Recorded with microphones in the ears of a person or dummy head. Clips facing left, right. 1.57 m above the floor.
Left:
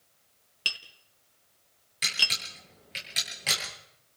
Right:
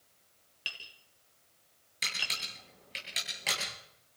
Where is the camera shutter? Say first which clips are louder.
Left 4 dB; centre (ahead or behind), 9.5 m.